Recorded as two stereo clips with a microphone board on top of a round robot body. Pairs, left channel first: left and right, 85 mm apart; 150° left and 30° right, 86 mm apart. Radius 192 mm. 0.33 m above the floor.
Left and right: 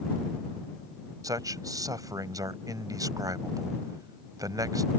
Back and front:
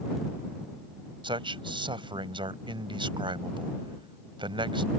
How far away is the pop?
No pop in this recording.